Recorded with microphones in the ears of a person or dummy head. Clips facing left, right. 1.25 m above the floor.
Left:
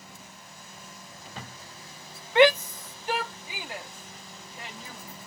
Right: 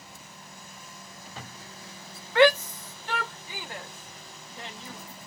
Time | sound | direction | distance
2.4 | a shout | 15° left (ahead or behind) | 0.6 m